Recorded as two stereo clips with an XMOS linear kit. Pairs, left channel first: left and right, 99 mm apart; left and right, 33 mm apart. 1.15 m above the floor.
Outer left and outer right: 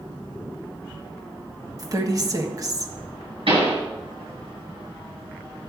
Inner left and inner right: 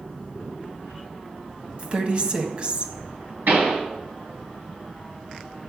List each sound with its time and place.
1.8 s a woman speaking: 40° right (ahead or behind), 1.4 m
3.5 s a pop: 65° right (ahead or behind), 5.5 m